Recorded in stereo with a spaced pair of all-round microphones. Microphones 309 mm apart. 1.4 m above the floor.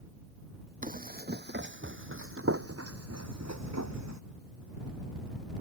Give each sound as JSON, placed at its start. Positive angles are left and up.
{"t": 0.8, "sound": "running footsteps", "side_deg": -25}